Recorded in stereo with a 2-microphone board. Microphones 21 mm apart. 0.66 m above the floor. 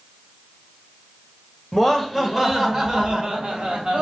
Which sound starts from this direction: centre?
Laughter, at 1.7 s.